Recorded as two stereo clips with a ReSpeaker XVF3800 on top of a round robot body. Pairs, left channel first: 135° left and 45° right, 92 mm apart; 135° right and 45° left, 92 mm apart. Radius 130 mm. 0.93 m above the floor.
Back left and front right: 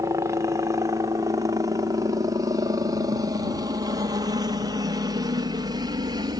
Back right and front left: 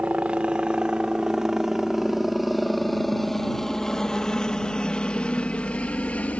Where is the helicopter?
25° right; by 6.4 s 65° right.